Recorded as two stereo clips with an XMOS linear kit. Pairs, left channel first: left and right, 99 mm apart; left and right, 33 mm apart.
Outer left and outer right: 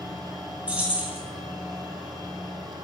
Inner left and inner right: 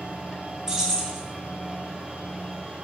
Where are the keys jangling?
15° right (ahead or behind), 1.5 m.